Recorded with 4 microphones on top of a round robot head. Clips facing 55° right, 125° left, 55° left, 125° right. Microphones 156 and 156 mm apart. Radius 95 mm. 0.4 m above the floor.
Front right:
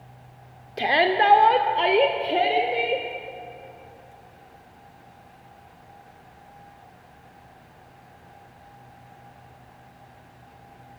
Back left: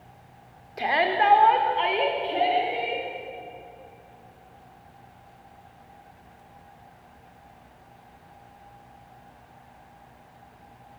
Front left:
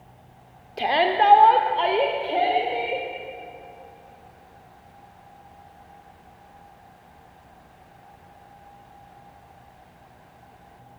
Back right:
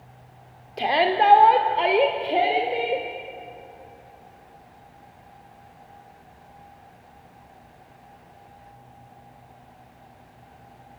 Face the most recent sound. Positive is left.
turn(degrees=-65)